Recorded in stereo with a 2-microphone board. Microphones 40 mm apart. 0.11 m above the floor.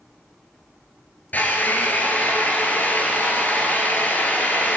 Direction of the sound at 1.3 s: 45° left (ahead or behind).